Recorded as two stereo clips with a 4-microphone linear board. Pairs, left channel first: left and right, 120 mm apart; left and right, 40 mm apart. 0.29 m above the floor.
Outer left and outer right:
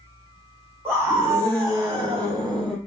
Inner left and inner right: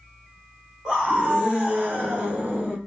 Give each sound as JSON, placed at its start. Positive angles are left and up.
{"t": 0.8, "sound": "a scream", "side_deg": -20, "distance_m": 1.7}